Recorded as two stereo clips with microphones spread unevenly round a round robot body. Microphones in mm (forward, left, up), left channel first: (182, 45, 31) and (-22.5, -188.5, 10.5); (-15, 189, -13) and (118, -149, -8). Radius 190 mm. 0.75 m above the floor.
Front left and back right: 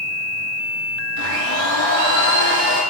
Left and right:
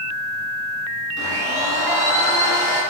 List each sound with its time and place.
1.2 s a blender: 170° right, 4 m